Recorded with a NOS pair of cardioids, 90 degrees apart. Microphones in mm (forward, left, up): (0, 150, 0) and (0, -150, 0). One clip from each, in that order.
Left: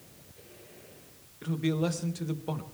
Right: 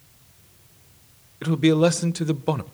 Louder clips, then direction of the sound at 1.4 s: Right 12 dB; 55° right.